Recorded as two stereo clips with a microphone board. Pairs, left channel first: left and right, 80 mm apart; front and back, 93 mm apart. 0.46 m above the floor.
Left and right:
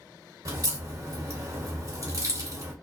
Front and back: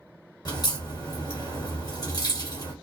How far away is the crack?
About 1.3 m.